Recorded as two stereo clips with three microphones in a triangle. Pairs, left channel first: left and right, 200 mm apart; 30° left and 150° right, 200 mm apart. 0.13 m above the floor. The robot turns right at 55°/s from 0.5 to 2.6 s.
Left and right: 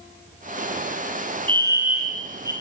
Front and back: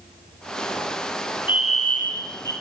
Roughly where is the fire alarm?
Ahead right.